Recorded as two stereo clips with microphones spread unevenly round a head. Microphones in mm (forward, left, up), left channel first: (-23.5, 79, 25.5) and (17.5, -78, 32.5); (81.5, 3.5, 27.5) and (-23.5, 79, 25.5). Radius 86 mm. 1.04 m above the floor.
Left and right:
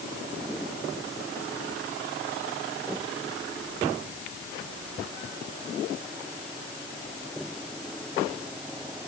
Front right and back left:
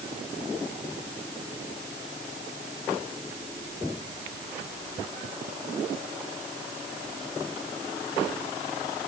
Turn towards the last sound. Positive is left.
No sound to turn to.